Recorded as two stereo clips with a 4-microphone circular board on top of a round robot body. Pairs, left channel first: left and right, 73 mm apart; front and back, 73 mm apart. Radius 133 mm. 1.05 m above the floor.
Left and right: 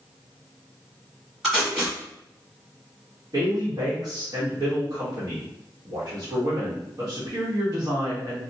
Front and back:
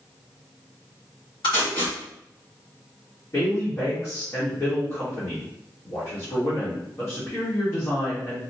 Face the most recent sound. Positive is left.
turn(degrees=-50)